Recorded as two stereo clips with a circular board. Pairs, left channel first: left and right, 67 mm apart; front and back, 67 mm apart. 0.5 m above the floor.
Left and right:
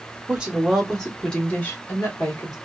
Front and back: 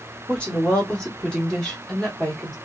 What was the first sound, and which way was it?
A woman speaking, 45° right.